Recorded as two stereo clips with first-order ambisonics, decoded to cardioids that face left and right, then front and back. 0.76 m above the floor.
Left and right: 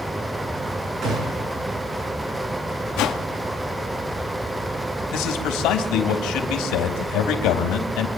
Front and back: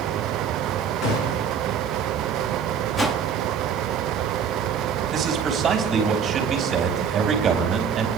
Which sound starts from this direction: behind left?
A man speaking, at 5.1 s.